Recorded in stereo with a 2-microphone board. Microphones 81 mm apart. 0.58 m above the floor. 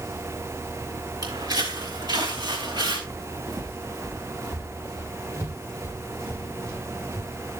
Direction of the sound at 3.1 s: 60° right (ahead or behind).